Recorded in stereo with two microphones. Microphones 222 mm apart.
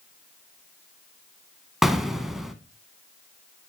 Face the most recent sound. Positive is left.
turn(degrees=0)  # may be behind; listen again after turning